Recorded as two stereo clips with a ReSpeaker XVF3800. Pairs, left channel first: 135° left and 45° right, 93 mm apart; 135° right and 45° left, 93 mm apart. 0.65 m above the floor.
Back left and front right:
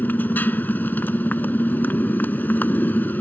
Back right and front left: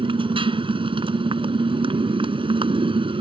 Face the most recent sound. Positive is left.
turn(degrees=65)